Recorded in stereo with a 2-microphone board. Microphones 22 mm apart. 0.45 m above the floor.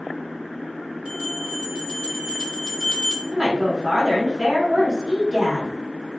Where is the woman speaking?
30° right (ahead or behind), 1.5 m.